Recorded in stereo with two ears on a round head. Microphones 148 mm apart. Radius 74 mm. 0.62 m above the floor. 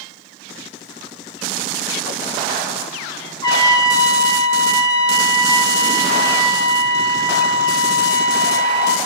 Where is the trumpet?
20° left (ahead or behind), 1.1 m.